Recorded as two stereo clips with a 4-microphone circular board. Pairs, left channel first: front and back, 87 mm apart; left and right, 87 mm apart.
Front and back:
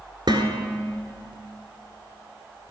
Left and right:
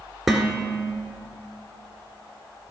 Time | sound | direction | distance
0.3 | dishes clattering | 175° right | 1.6 m